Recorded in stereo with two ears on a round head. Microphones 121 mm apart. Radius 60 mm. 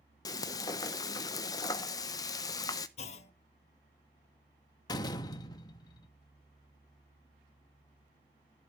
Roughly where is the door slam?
Left.